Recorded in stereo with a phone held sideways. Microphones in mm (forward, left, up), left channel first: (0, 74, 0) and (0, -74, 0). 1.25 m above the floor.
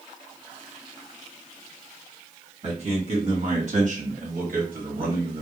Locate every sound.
2.6 s a man speaking: 40° right (ahead or behind), 1.8 m; by 5.4 s 70° right (ahead or behind), 1.0 m